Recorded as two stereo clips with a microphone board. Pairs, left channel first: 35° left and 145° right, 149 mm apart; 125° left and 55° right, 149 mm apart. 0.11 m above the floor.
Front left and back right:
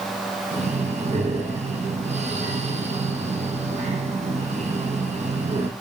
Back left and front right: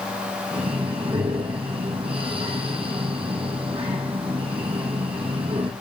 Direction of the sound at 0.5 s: 105° right.